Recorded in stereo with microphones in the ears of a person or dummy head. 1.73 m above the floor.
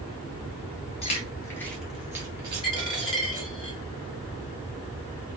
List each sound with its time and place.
1.0 s keys jangling: 35° left (ahead or behind), 0.9 m; by 3.5 s 45° right (ahead or behind), 1.4 m
2.6 s a dropped coin: 25° left (ahead or behind), 2 m